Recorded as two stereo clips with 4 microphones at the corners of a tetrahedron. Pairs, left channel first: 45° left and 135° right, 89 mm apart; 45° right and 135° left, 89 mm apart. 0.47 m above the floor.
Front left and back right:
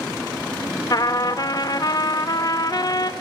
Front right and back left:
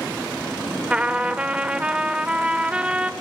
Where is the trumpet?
60° left, 1.0 m.